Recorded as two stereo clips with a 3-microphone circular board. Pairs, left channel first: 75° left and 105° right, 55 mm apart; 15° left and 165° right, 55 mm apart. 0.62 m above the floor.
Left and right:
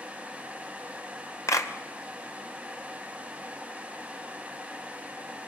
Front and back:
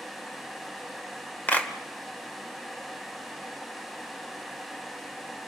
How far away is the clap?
About 2 m.